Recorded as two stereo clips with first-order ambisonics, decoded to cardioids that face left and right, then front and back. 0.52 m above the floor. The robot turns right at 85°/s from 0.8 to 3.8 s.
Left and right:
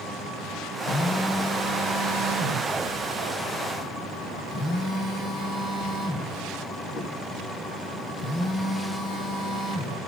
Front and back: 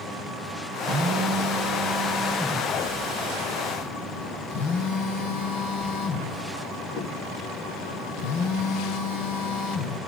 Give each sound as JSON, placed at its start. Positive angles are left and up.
{"t": 0.9, "sound": "a phone buzzing", "azimuth_deg": 135, "distance_m": 3.0}